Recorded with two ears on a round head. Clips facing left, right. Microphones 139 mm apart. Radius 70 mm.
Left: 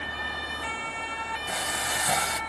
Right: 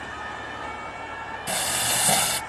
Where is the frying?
35° right (ahead or behind).